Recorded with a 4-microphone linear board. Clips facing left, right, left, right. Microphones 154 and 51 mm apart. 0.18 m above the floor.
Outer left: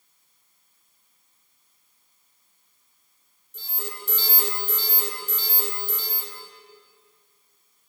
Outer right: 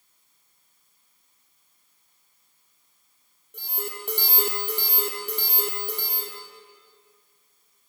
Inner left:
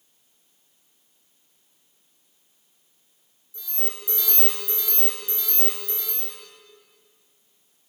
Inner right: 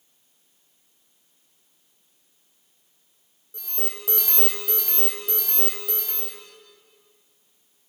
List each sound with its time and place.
3.5 s an alarm: 60° right (ahead or behind), 6 m